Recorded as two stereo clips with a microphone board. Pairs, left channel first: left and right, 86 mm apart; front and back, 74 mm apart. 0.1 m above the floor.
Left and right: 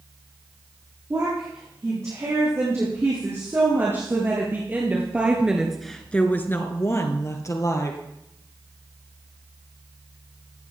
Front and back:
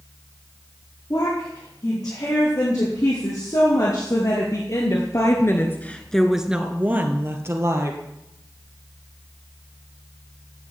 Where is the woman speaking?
35° right, 7.5 m; by 8.0 s 135° left, 3 m.